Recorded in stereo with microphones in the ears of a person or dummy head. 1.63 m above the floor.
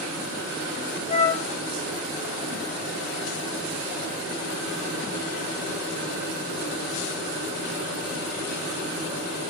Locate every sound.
1.1 s a flute: 40° left (ahead or behind), 0.9 m